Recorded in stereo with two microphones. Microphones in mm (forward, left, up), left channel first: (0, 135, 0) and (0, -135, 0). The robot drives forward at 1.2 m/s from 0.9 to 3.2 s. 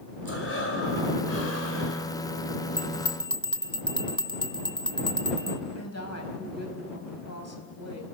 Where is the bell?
30° left (ahead or behind), 0.8 m; by 5.6 s 20° left (ahead or behind), 1.2 m.